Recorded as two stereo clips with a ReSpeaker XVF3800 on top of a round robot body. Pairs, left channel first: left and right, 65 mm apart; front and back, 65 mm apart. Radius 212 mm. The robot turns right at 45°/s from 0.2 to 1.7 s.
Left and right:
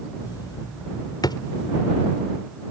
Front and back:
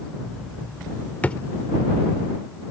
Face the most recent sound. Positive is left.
turn(degrees=90)